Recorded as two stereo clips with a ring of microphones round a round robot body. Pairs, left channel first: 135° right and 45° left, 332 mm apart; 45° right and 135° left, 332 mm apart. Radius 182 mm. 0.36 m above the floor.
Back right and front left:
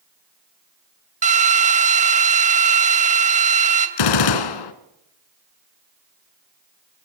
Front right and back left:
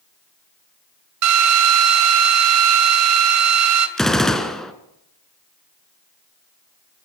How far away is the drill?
About 3 m.